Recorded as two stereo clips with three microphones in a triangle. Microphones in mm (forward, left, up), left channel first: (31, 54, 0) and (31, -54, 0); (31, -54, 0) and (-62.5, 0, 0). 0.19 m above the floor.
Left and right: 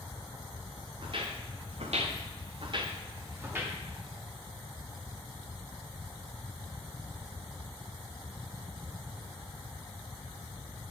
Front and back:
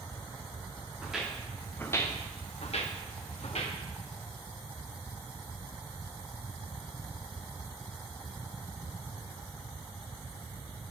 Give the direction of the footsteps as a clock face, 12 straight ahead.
4 o'clock.